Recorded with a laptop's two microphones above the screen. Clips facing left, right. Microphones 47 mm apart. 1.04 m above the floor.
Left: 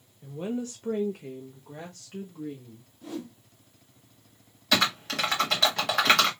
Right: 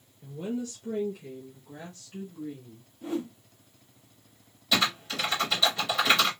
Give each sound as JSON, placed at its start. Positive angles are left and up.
{"t": 0.2, "sound": "a woman speaking", "side_deg": 20, "distance_m": 0.7}
{"t": 3.0, "sound": "a whoosh", "side_deg": -25, "distance_m": 0.8}
{"t": 4.7, "sound": "typing on a keyboard", "side_deg": 65, "distance_m": 1.7}